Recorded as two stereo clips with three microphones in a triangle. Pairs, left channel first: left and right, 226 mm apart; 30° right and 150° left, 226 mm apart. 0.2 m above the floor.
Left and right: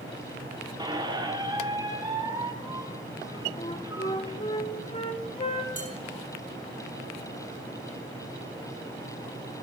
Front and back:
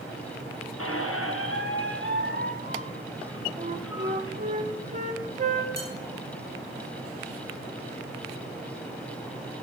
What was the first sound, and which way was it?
A squeak, 15° right.